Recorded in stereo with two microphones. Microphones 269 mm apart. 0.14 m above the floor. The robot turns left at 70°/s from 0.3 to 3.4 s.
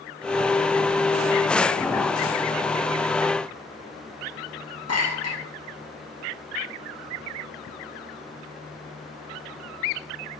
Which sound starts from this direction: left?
A clink, at 4.9 s.